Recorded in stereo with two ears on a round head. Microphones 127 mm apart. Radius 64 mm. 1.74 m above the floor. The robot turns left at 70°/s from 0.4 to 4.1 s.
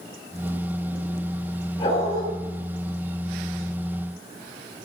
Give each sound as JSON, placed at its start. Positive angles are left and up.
{"t": 1.8, "sound": "a dog barking", "azimuth_deg": 145, "distance_m": 4.5}